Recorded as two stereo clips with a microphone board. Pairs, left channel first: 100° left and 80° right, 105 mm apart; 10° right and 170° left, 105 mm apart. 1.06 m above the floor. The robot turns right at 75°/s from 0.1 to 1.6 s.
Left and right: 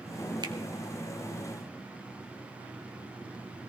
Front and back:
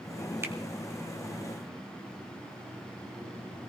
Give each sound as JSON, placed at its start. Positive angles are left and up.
{"t": 0.4, "sound": "a finger snap", "azimuth_deg": -125, "distance_m": 1.6}